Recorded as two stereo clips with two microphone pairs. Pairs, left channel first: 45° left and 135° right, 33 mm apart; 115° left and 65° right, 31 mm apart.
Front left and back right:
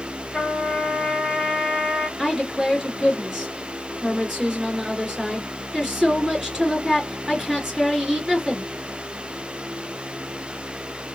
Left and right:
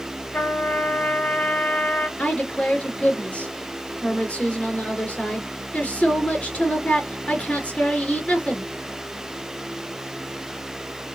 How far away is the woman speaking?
About 2.5 m.